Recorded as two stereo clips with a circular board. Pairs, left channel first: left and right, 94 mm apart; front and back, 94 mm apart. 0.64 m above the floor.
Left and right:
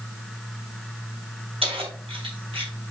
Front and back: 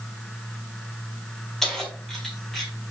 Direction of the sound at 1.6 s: 85° right.